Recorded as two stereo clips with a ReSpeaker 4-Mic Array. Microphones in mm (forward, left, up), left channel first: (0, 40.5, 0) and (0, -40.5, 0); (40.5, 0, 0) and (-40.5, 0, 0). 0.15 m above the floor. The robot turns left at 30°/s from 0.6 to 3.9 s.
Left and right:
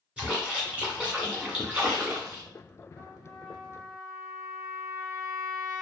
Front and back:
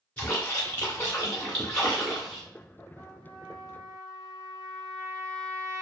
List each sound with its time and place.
0.2 s a splash: 40° right, 1.7 m; by 2.4 s 95° right, 1.7 m
3.0 s a trumpet: 175° right, 1.8 m; by 5.8 s 160° left, 1.8 m